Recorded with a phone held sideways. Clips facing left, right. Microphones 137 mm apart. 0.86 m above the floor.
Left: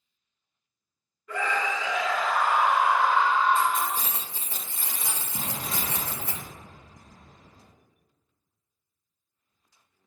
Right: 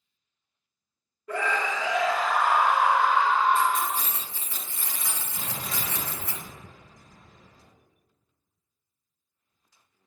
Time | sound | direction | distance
1.3 | a scream | 40° right (ahead or behind) | 0.9 m
3.5 | keys jangling | 30° left (ahead or behind) | 1.6 m
5.3 | an explosion | 45° left (ahead or behind) | 1.6 m